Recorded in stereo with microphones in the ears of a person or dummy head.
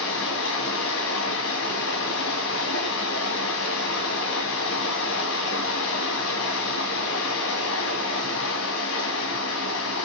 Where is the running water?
75° left (ahead or behind), 2.5 m.